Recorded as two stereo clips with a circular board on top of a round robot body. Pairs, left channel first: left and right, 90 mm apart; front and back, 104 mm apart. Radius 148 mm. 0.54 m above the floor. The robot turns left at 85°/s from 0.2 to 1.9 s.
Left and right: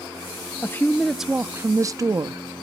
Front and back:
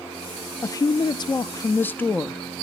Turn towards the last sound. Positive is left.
turn(degrees=-65)